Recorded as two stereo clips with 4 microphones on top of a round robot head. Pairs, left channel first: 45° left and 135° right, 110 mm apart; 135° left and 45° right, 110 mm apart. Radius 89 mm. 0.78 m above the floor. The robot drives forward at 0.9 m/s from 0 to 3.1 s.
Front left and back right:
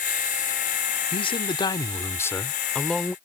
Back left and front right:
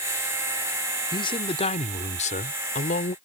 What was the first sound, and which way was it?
A man speaking, 85° left.